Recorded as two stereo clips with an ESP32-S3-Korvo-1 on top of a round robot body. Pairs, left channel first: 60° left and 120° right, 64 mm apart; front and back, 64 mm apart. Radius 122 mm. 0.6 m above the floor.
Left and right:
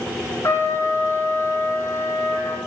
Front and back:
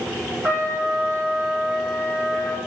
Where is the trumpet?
110° left, 2 m.